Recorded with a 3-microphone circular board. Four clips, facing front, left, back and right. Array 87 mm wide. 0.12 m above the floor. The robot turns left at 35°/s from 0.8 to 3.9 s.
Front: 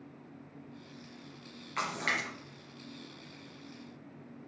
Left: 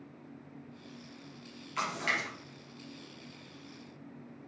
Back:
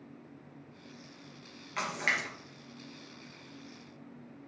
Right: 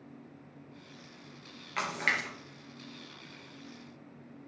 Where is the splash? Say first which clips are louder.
Right 1 dB, even; 95° right, 2.5 m; by 2.3 s 115° right, 2.5 m.